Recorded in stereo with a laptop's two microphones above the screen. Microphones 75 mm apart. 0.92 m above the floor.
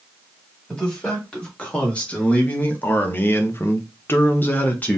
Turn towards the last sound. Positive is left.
turn(degrees=20)  # may be behind; listen again after turning